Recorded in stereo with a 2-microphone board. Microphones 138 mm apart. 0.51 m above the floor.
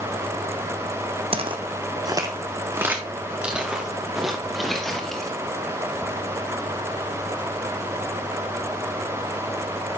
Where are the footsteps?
40° right (ahead or behind), 1.4 m; by 5.3 s 5° left (ahead or behind), 3 m.